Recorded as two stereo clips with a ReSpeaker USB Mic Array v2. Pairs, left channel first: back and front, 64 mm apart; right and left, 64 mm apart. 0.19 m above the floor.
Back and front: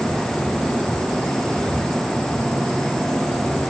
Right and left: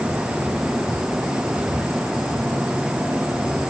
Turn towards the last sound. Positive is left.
No sound to turn to.